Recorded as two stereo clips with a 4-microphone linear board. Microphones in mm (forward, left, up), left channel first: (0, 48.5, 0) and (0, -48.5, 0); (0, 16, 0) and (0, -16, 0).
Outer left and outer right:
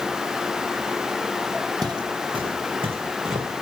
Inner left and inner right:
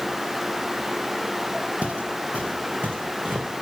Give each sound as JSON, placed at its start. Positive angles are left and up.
{"t": 1.8, "sound": "footsteps", "side_deg": -45, "distance_m": 0.9}